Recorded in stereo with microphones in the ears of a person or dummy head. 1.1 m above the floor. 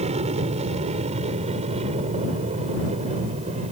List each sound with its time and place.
0.0 s an aircraft: 35° right (ahead or behind)